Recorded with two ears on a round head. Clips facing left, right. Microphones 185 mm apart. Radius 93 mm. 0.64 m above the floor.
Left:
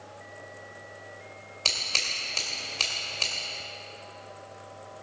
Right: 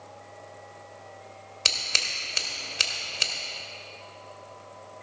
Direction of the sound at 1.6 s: 20° right (ahead or behind).